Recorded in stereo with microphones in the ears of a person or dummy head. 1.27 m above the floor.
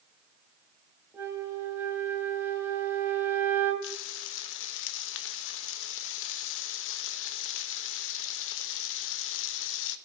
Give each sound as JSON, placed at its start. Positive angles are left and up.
{"t": 1.1, "sound": "a flute", "side_deg": -15, "distance_m": 2.5}
{"t": 3.8, "sound": "frying", "side_deg": 75, "distance_m": 1.0}